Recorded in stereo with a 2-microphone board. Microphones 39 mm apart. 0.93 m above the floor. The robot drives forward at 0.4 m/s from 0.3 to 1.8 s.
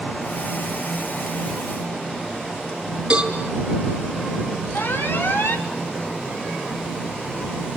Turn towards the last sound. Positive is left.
turn(degrees=70)  # may be behind; listen again after turning